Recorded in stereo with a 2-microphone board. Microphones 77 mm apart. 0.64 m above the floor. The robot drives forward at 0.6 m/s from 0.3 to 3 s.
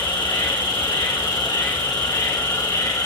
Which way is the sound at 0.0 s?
75° left (ahead or behind).